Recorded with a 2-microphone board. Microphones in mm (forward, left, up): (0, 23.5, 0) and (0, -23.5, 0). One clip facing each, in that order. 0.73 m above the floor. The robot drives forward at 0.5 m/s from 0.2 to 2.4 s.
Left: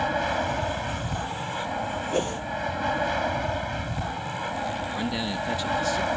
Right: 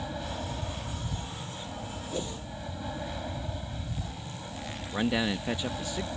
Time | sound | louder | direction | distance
0.0 | an aircraft | left 11 dB | 70° left (ahead or behind) | ?
2.1 | a whoosh | left 8 dB | 60° left (ahead or behind) | ?
4.9 | a man speaking | even | 20° right (ahead or behind) | ?